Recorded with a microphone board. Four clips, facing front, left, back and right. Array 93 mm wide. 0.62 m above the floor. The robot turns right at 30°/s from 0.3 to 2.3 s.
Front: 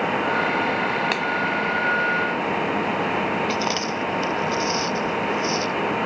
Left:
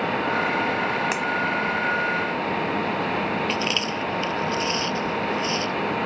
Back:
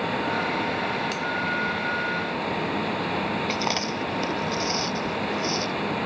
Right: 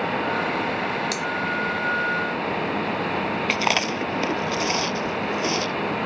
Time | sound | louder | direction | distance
1.1 | a finger snap | left 2 dB, front 5 dB | 30° left | ?
3.5 | chewing | right 2 dB, front 3 dB | 85° right | ?